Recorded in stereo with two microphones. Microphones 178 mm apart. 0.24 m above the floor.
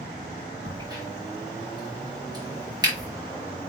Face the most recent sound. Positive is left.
turn(degrees=-25)  # may be behind; listen again after turning